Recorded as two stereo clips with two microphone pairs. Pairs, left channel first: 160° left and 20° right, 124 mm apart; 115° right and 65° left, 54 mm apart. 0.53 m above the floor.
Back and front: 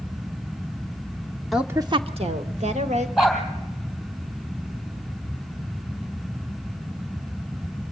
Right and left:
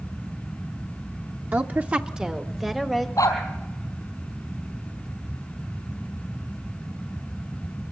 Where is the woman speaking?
65° left, 0.8 m; by 3.1 s 25° right, 2 m.